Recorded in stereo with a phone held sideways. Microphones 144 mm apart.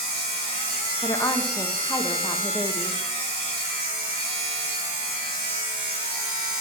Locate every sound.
0.0 s a machine running: 40° left (ahead or behind), 3 m
1.0 s a woman speaking: 20° left (ahead or behind), 0.8 m